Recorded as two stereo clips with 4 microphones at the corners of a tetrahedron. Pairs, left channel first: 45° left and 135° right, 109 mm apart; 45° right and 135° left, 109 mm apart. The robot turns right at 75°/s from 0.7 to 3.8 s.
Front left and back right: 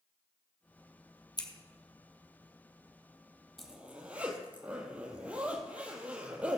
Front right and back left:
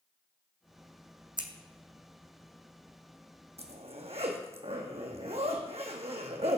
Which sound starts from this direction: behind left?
A zipper, at 3.6 s.